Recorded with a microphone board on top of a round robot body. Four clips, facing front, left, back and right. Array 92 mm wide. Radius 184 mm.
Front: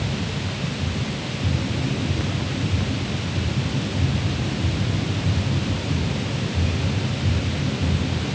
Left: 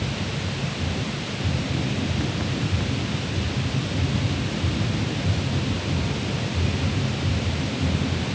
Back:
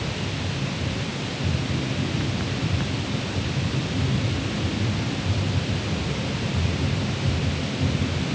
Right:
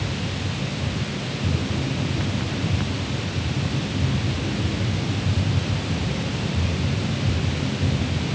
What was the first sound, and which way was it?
Only background noise.